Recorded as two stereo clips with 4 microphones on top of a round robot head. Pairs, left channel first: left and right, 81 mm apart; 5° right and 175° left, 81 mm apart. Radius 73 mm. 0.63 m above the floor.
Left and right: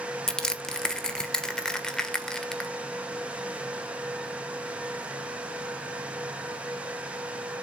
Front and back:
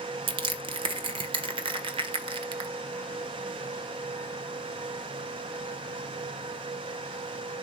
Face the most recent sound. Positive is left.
turn(degrees=170)